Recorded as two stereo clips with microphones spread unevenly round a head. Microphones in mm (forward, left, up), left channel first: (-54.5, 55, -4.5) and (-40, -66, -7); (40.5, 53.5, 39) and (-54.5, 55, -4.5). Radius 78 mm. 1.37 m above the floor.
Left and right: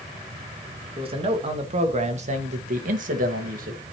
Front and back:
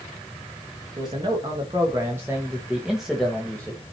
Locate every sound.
1.0 s a man speaking: 125° right, 2 m; by 3.9 s 75° right, 1.5 m